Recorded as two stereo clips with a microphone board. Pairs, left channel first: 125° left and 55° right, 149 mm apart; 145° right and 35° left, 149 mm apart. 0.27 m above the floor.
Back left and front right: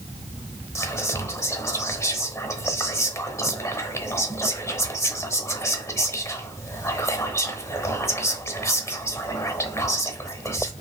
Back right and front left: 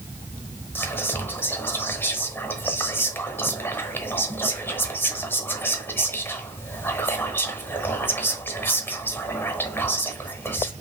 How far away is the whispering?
About 0.9 m.